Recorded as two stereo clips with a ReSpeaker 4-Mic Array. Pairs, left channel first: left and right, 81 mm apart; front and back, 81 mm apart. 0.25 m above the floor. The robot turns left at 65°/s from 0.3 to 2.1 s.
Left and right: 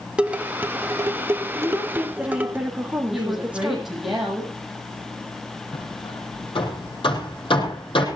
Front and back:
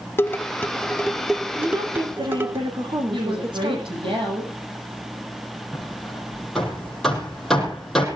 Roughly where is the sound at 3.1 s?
Behind.